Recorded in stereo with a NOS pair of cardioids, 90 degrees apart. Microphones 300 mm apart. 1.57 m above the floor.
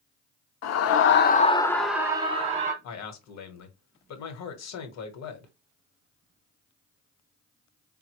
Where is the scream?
70° left, 0.7 m; by 2.7 s 25° right, 1.0 m.